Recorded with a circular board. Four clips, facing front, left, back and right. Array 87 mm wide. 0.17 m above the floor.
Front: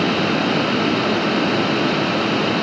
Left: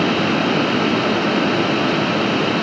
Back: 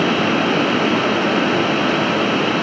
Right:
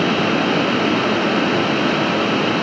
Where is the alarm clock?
I don't hear an alarm clock.